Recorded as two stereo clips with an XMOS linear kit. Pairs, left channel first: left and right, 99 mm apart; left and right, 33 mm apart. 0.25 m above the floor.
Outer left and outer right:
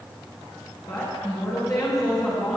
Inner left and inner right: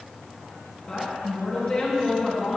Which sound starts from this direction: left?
A woman speaking, at 0.9 s.